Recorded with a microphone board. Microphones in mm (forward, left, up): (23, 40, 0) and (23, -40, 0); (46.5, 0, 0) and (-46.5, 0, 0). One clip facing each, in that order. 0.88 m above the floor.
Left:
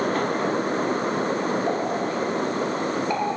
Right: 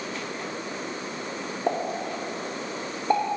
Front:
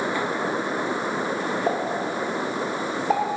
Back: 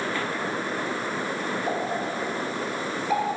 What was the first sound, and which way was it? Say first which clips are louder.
A pop: left 3 dB, front 2 dB; 40° right.